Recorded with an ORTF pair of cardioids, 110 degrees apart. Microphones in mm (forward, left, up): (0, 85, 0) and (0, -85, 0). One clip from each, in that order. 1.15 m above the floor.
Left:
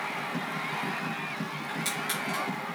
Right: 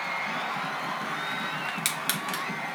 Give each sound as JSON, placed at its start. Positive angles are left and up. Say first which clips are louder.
{"t": 1.7, "sound": "crushing", "louder": "right 2 dB", "azimuth_deg": -65, "distance_m": 1.7}